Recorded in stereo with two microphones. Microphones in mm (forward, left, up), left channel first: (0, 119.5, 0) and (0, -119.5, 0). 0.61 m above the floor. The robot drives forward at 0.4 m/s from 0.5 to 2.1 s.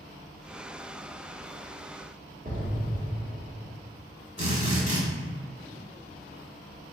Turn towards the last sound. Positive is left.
turn(degrees=-25)  # may be behind; listen again after turning